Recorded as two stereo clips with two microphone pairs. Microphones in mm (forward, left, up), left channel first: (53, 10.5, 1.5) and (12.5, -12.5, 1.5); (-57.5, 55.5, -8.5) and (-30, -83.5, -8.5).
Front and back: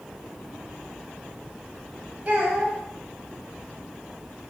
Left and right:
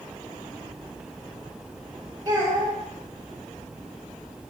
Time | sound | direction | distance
2.2 | a child speaking | 100° right | 0.7 m